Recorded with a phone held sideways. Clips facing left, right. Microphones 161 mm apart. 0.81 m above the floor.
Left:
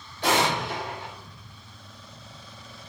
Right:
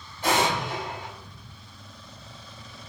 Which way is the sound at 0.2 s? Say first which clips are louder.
Even; 80° left.